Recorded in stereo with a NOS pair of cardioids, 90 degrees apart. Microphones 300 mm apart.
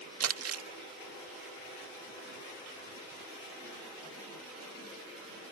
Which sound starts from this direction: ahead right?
Crumpling, at 0.2 s.